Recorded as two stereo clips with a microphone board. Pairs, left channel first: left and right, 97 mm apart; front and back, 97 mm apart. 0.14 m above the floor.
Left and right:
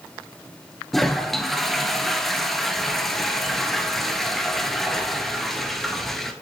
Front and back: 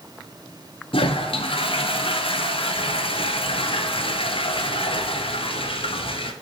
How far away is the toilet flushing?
About 0.7 m.